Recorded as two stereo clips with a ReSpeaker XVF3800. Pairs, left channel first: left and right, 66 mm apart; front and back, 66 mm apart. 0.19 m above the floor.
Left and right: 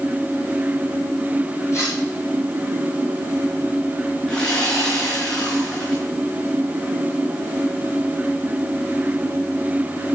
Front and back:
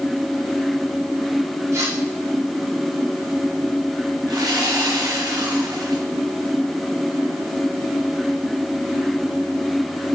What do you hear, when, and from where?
1.7 s cutlery clinking: 135° left, 6.5 m
4.3 s sawing: 160° left, 5.5 m